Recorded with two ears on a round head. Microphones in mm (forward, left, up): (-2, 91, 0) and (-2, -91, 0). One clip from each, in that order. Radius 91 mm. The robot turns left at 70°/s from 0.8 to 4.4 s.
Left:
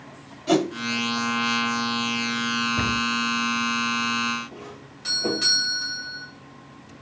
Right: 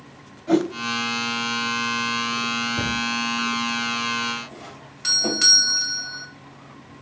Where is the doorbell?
50° right (ahead or behind), 2.5 m.